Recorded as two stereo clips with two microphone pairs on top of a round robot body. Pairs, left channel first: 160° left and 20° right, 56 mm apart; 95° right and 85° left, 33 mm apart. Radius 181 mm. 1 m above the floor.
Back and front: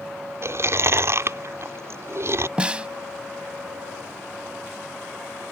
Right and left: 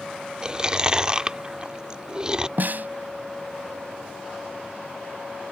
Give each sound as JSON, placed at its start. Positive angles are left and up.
{"t": 0.4, "sound": "chewing", "azimuth_deg": 20}
{"t": 2.6, "sound": "a snare drum", "azimuth_deg": 60}